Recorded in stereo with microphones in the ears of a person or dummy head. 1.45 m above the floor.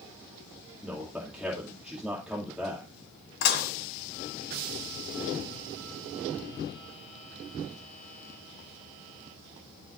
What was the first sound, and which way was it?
A man speaking, centre (ahead or behind).